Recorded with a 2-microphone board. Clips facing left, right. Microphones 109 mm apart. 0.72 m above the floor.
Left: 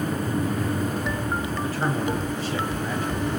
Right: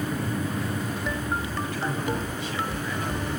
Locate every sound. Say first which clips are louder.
1.6 s a man speaking: left 3 dB; 35° left (ahead or behind), 5 m